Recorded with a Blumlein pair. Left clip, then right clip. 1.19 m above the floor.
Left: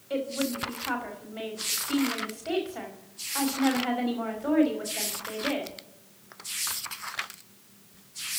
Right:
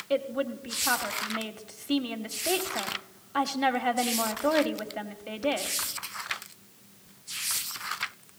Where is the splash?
No splash in this recording.